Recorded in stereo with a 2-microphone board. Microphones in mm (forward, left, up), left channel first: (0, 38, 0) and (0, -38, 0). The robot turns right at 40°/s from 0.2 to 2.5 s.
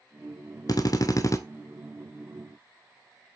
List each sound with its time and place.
0.7 s a drill: 55° left (ahead or behind), 0.7 m; by 1.4 s 40° left (ahead or behind), 0.7 m